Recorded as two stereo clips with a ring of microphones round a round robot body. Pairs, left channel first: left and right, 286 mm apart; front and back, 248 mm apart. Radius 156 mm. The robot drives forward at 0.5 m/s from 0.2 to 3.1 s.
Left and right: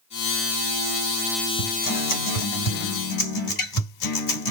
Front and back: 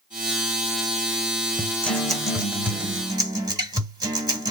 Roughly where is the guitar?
Left.